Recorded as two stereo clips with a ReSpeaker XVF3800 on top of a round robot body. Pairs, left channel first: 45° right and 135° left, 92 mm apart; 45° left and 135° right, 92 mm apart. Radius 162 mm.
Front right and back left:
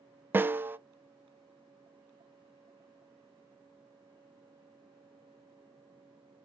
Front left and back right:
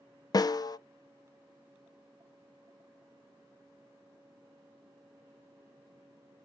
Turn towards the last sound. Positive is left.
turn(degrees=70)